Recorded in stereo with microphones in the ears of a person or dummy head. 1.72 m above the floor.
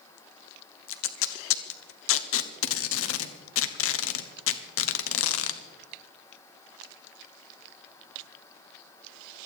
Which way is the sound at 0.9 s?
80° left.